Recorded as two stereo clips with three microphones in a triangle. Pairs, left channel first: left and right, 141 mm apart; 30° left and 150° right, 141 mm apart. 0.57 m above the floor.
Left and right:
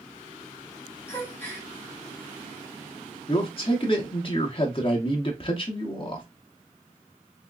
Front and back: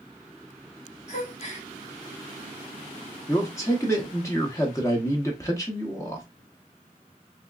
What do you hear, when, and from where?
1.1 s a gasp: 20° left, 1.1 m
3.3 s a man speaking: 85° left, 0.7 m